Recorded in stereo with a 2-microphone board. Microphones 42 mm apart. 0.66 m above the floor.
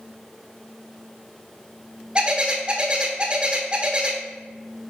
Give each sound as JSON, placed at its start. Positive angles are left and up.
{"t": 2.1, "sound": "a bird", "side_deg": -25, "distance_m": 1.3}